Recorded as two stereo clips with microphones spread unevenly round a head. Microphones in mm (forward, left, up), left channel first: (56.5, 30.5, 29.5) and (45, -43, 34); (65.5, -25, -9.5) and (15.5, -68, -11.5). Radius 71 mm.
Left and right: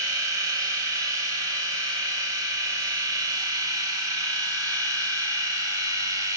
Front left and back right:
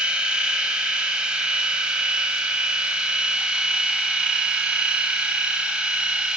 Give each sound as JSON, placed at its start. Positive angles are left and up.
{"t": 0.0, "sound": "a machine running", "azimuth_deg": -65, "distance_m": 0.7}